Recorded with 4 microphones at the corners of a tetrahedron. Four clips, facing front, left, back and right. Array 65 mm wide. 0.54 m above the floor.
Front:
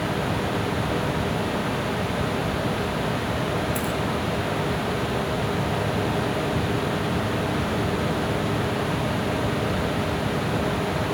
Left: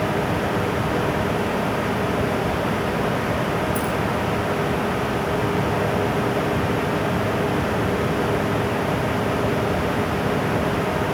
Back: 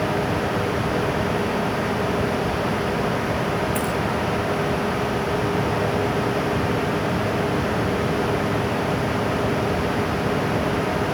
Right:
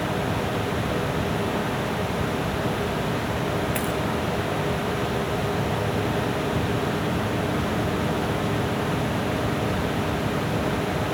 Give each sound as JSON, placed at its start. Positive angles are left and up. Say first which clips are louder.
{"t": 3.8, "sound": "a dropped coin", "louder": "left 3 dB, back 3 dB", "azimuth_deg": -125, "distance_m": 2.5}